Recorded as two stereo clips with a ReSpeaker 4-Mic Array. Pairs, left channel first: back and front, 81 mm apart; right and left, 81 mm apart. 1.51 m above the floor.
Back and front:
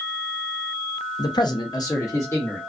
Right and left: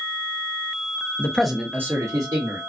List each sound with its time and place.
1.2 s a man speaking: 155° right, 0.6 m; by 2.6 s 120° left, 1.2 m